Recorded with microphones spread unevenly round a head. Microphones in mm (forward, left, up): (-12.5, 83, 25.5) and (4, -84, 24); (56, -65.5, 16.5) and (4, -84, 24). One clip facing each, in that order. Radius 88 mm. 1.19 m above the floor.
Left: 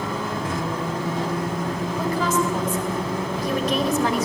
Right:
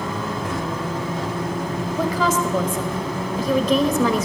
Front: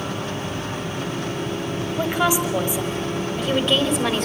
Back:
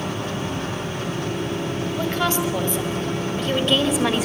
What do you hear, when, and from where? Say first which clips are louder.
1.9 s a woman speaking: right 3 dB, front 3 dB; 55° right, 6 m; by 4.2 s 75° right, 4.5 m